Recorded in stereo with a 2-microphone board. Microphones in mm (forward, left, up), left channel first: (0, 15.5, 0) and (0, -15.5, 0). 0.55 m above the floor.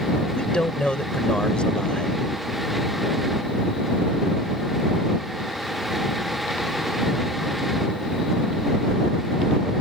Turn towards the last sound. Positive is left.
turn(degrees=30)  # may be behind; listen again after turning